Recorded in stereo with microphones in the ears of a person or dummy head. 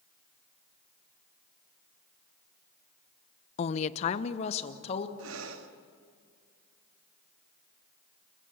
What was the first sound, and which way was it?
A woman speaking, 35° left (ahead or behind).